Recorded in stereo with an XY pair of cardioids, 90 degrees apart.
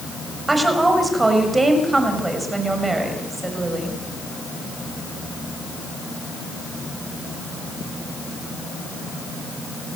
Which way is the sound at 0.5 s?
25° right.